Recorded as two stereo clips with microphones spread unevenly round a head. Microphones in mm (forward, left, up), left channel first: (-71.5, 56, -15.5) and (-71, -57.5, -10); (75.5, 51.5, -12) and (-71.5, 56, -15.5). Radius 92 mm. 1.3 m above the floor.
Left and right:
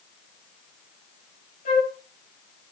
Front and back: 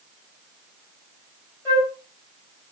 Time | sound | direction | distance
1.6 | a flute | 70° left | 6 m